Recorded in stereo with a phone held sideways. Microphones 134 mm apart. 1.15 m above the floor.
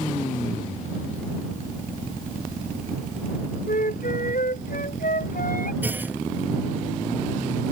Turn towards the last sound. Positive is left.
turn(degrees=-15)  # may be behind; listen again after turning